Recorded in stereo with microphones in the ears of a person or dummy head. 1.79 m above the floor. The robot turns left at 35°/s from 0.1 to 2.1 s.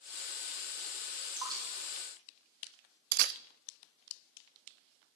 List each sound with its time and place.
1.3 s dripping: 30° right (ahead or behind), 3 m; by 1.6 s 20° right (ahead or behind), 3 m
3.1 s a camera shutter: 55° right (ahead or behind), 0.5 m